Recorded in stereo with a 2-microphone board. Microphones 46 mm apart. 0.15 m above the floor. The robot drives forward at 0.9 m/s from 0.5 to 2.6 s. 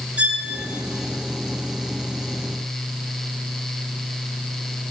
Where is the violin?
30° right (ahead or behind), 2.5 m.